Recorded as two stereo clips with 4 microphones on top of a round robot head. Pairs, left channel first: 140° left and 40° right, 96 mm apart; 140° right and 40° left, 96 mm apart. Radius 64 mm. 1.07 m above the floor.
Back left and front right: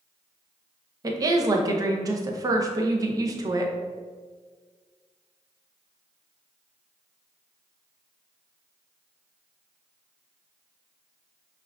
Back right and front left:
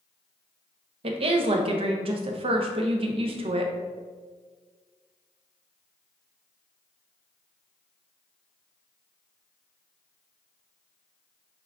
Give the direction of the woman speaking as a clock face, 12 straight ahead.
12 o'clock.